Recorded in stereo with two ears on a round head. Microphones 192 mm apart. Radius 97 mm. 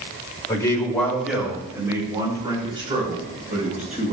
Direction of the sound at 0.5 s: 20° left (ahead or behind).